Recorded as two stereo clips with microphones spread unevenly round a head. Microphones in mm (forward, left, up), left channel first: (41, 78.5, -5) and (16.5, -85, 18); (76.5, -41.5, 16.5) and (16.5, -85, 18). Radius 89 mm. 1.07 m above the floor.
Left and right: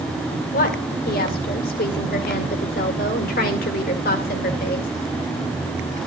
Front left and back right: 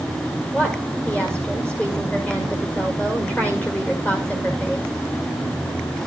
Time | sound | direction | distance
0.5 | a woman speaking | 110° left | 1.9 m